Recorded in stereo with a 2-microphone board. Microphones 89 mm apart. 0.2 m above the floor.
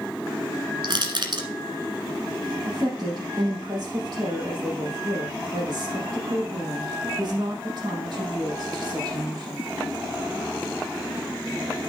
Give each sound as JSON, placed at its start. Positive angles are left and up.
{"t": 0.8, "sound": "crushing", "side_deg": -60, "distance_m": 1.3}
{"t": 2.6, "sound": "a woman speaking", "side_deg": -55, "distance_m": 6.0}